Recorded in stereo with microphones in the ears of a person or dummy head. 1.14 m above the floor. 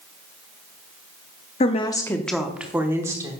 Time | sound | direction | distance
1.6 | a woman speaking | 30° left (ahead or behind) | 0.6 m